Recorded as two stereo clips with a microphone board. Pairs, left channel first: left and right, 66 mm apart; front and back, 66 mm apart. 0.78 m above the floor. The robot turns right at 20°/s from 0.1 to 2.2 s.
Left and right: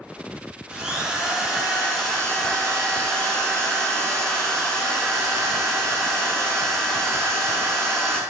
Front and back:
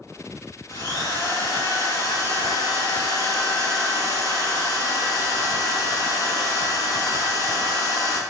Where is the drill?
25° right, 8 m; by 8.2 s 5° left, 8 m.